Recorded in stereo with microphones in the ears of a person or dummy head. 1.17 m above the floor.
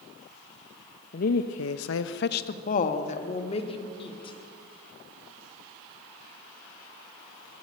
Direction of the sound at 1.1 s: 40° left (ahead or behind).